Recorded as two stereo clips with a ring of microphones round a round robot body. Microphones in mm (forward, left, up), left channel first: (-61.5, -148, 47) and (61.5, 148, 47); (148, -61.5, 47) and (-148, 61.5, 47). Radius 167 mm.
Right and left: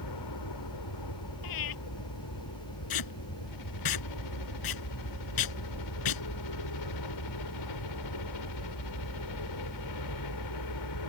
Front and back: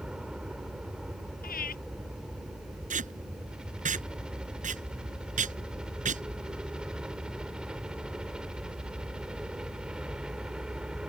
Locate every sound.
0.0 s a helicopter: 115° right
1.4 s breathing: 85° right
2.9 s tape being pulled: 135° right